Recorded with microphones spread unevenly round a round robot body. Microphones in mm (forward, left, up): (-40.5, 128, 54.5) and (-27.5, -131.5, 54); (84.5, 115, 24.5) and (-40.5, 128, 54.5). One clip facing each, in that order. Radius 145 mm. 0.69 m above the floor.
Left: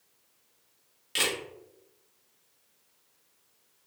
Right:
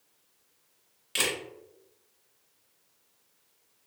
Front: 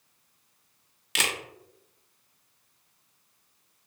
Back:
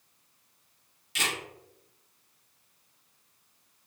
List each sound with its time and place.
1.1 s a camera shutter: straight ahead, 0.5 m